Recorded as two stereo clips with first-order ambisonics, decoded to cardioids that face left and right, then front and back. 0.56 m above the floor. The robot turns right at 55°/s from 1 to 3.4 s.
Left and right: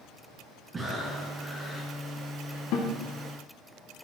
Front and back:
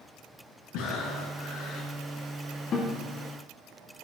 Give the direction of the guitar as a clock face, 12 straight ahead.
10 o'clock.